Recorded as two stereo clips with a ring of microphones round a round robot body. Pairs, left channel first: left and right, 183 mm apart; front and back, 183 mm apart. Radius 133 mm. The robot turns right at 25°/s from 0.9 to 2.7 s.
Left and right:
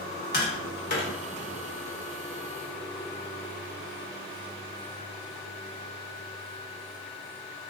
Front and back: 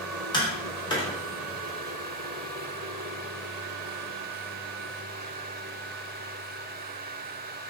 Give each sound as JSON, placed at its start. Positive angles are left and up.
{"t": 0.3, "sound": "tapping", "azimuth_deg": 65, "distance_m": 1.1}